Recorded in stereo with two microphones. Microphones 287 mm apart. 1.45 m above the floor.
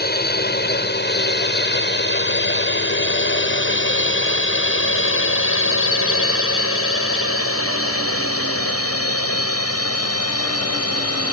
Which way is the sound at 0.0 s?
35° left (ahead or behind).